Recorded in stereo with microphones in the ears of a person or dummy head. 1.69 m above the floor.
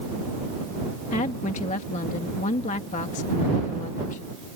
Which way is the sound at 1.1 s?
40° left (ahead or behind).